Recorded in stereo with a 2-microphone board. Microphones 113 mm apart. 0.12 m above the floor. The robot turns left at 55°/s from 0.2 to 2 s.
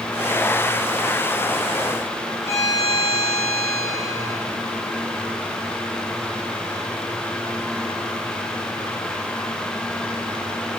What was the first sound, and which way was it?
A violin, 25° left (ahead or behind).